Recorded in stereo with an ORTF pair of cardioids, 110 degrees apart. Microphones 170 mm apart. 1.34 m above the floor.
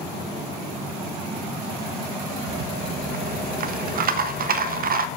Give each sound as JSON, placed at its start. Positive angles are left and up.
{"t": 2.5, "sound": "a rattle", "azimuth_deg": -60, "distance_m": 0.7}